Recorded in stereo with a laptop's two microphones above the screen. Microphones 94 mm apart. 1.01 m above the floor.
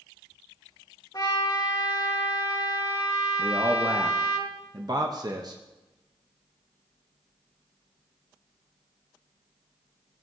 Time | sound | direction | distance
1.1 | a trumpet | 40° left (ahead or behind) | 1.8 m
3.4 | a man speaking | 45° right (ahead or behind) | 0.8 m